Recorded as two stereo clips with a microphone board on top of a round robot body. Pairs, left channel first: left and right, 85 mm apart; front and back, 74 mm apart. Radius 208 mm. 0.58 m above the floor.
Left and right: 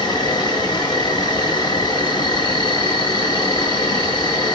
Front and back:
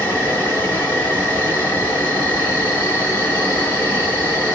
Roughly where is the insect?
Ahead left.